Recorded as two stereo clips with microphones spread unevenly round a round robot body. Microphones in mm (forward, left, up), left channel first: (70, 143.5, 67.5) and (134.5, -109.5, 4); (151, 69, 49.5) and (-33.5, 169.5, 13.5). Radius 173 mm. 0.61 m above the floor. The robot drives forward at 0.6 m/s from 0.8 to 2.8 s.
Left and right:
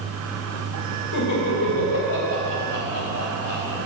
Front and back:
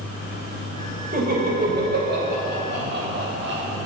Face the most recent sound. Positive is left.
turn(degrees=125)